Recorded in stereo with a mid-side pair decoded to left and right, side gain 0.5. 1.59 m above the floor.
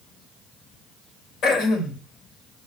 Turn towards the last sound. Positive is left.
turn(degrees=65)